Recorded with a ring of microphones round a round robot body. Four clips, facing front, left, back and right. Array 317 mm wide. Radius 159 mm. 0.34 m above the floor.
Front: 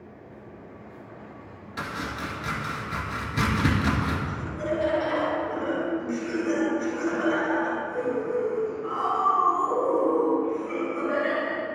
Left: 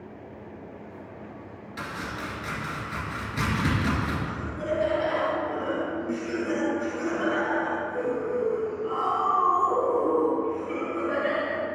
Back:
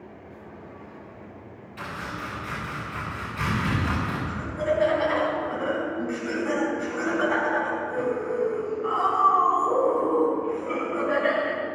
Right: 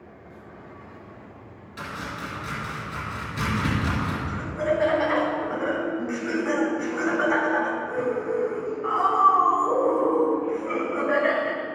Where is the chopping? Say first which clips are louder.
Right 1 dB, front 2 dB; 5° left, 4.5 m.